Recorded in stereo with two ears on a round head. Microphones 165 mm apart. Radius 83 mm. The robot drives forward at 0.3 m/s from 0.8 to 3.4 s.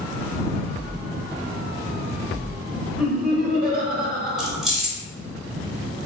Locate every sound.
3.0 s laughter: 50° right (ahead or behind), 1.4 m
4.4 s keys jangling: centre (ahead or behind), 1.1 m